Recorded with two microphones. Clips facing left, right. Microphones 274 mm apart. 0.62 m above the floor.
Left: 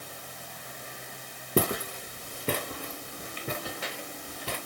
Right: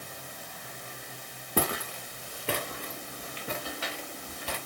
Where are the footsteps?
35° left (ahead or behind), 1.9 m; by 4.6 s 55° left (ahead or behind), 4.5 m.